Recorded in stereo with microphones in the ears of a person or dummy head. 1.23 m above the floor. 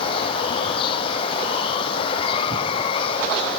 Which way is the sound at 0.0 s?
35° left (ahead or behind).